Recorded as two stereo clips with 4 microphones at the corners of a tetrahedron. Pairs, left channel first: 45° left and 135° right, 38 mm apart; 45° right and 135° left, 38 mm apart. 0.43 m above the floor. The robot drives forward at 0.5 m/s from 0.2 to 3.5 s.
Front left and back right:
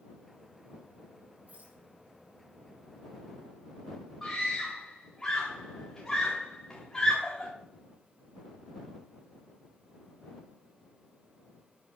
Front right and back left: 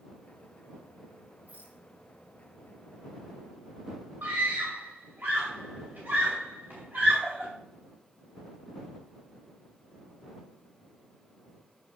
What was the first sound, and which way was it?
A rattle, 175° right.